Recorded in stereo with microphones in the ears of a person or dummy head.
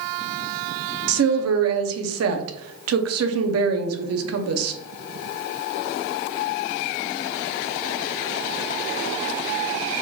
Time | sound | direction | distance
1.1 | a woman speaking | 75° right (ahead or behind) | 0.7 m